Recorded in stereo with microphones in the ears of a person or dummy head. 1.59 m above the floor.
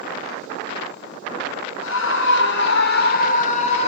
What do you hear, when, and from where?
1.8 s a scream: 75° left (ahead or behind), 2.5 m; by 3.9 s 35° left (ahead or behind), 2.0 m